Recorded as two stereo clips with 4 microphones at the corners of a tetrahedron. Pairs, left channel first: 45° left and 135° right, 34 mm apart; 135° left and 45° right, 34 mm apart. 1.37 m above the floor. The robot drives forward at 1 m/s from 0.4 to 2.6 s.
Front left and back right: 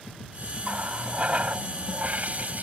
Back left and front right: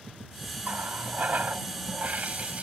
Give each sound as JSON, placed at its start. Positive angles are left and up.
{"t": 0.6, "sound": "a running tap", "azimuth_deg": -75}